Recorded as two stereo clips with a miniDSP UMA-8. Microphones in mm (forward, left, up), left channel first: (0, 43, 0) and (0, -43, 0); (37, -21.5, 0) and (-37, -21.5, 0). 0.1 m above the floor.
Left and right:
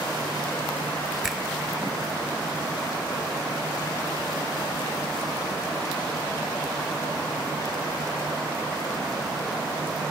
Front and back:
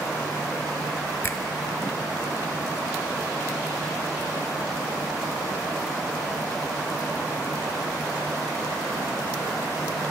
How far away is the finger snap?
About 1.5 m.